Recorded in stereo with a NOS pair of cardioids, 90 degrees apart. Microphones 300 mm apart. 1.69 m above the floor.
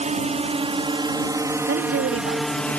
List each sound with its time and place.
0.0 s a drone: 25° right; by 2.8 s 5° left
1.7 s a woman speaking: 50° right